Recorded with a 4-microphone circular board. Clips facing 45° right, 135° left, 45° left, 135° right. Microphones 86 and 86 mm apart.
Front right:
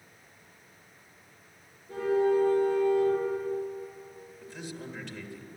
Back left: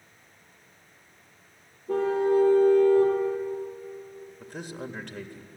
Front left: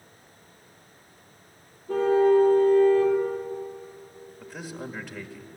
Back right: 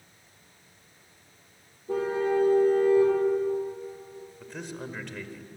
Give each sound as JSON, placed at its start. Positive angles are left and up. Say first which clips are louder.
{"t": 1.9, "sound": "a car horn", "louder": "back left 2 dB, front left 7 dB", "azimuth_deg": 145, "distance_m": 5.5}
{"t": 4.4, "sound": "a man speaking", "louder": "back left 3 dB, front left 1 dB", "azimuth_deg": 125, "distance_m": 1.6}